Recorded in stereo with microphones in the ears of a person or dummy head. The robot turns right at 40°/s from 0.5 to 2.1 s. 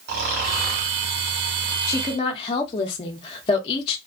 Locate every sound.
0.1 s snoring: 45° right (ahead or behind), 1.0 m; by 1.0 s 65° right (ahead or behind), 1.0 m
1.9 s a woman speaking: 15° left (ahead or behind), 0.6 m; by 4.0 s 25° left (ahead or behind), 0.6 m